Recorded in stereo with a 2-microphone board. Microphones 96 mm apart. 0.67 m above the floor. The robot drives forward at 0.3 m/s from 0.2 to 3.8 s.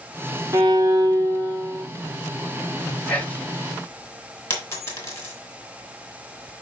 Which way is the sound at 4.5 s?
30° left (ahead or behind).